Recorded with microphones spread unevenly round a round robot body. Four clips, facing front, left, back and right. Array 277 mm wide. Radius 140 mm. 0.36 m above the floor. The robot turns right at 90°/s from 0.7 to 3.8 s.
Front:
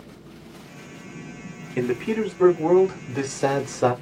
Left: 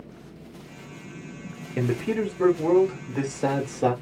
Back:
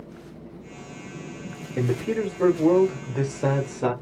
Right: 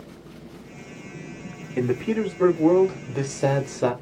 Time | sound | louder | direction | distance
1.8 | a man speaking | right 2 dB, front 1 dB | 125° left | 1.1 m